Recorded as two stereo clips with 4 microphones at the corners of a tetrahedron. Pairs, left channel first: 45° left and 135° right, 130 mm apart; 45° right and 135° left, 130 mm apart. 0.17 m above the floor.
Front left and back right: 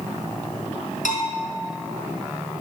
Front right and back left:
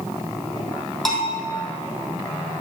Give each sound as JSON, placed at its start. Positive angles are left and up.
{"t": 1.1, "sound": "a bell", "azimuth_deg": 40, "distance_m": 2.5}